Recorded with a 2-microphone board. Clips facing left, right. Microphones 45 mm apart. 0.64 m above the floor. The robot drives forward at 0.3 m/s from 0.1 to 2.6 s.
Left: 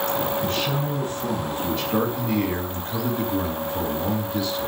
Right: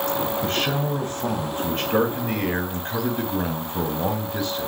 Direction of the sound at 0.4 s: 50° right (ahead or behind).